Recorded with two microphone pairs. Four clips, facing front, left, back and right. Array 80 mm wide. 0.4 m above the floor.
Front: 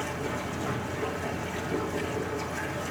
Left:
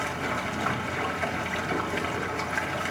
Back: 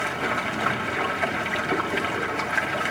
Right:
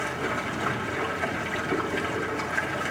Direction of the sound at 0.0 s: 170° left.